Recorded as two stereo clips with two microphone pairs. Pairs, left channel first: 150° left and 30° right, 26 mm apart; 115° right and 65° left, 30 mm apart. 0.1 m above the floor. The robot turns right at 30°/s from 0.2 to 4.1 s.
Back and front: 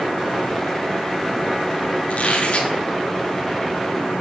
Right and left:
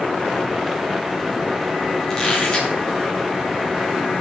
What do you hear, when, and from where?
2.1 s a squeak: 170° left, 9 m; by 2.7 s 175° right, 9 m